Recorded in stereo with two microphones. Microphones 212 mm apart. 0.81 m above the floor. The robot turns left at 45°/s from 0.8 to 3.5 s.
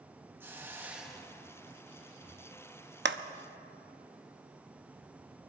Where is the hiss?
165° right, 1.1 m; by 1.8 s 150° left, 1.1 m.